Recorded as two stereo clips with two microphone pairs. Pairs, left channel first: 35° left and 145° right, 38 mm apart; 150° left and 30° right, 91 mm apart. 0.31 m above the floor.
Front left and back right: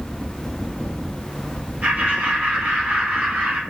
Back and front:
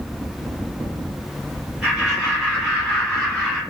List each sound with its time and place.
1.8 s laughter: 110° right, 2.5 m; by 3.6 s 125° right, 3 m